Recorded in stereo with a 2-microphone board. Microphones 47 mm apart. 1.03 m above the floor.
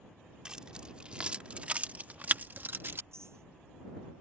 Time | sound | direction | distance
0.5 | keys jangling | 20° right (ahead or behind) | ?
3.1 | a clink | 75° right (ahead or behind) | ?